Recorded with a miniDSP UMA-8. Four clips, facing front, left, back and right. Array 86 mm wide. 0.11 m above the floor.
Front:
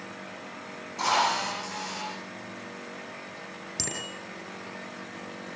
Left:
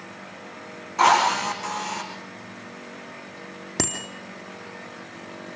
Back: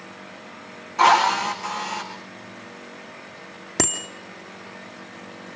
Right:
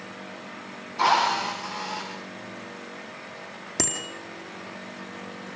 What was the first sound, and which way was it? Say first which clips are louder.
A drill: left 3 dB, back 9 dB; 130° left.